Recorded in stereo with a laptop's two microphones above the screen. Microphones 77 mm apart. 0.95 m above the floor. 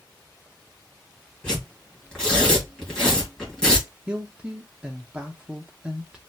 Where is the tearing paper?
10° left (ahead or behind), 1.6 m.